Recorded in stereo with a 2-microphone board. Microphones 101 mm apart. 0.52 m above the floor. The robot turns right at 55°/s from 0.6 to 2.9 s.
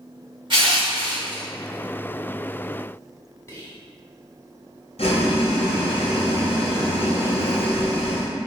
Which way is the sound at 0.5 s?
110° right.